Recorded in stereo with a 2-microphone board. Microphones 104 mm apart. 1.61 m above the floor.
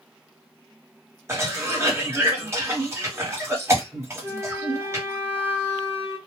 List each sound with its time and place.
1.3 s a cough: 25° right (ahead or behind), 1.2 m
4.2 s a flute: 20° right (ahead or behind), 1.3 m